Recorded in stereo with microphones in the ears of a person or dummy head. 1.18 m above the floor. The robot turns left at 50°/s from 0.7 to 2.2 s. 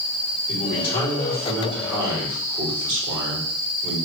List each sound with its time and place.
0.5 s a man speaking: 45° left, 4 m; by 4.0 s 30° right, 4 m